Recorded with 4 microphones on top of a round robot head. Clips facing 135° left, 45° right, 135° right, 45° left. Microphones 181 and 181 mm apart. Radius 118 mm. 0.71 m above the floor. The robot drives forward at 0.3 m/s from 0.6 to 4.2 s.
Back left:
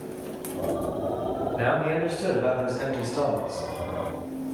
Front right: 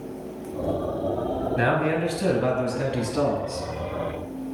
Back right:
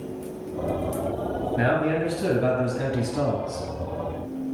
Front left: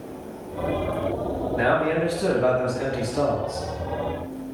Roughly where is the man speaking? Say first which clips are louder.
Front right 1 dB, front left 2 dB; right.